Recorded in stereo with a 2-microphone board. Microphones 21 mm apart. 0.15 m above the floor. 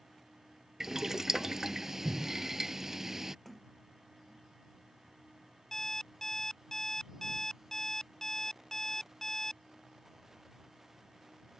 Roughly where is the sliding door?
Centre.